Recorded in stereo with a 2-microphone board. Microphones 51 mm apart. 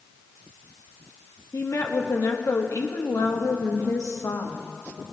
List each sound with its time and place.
1.5 s a woman speaking: 80° left, 1.1 m